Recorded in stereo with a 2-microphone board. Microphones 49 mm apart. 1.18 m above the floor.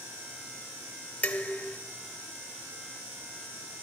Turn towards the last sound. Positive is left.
turn(degrees=30)  # may be behind; listen again after turning